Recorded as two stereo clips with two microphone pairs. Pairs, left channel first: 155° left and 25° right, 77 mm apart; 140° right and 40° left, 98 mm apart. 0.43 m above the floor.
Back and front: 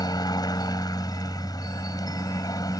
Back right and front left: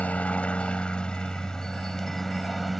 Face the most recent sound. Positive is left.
turn(degrees=130)